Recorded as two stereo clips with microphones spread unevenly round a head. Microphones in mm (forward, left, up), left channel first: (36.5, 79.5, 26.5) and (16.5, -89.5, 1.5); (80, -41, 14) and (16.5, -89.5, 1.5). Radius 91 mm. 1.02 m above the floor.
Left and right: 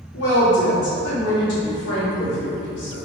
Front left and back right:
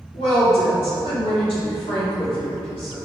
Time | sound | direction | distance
0.1 | a woman speaking | 65° left | 1.9 m